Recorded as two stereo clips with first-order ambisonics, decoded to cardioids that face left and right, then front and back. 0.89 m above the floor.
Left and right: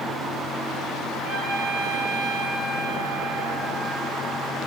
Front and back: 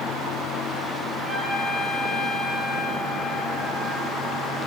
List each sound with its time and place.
1.2 s a trumpet: 90° right, 2.5 m